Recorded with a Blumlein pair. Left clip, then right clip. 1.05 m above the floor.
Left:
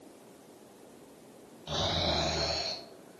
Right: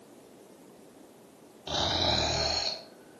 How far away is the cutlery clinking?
I don't hear cutlery clinking.